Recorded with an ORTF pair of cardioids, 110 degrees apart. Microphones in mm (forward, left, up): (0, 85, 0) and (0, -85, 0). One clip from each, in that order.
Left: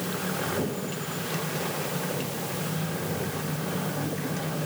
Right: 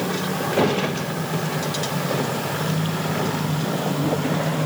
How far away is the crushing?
I don't hear crushing.